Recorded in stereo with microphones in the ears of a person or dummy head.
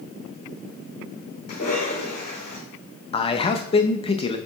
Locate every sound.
1.5 s a cough: 50° left (ahead or behind), 4.5 m
3.1 s a man speaking: 30° left (ahead or behind), 0.8 m